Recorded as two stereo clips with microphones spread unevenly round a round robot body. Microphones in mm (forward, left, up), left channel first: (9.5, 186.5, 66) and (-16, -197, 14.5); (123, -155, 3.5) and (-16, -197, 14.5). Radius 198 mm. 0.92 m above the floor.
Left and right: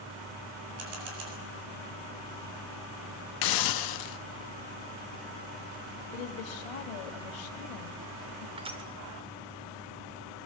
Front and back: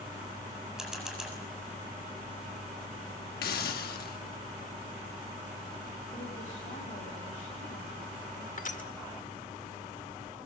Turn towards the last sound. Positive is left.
turn(degrees=-15)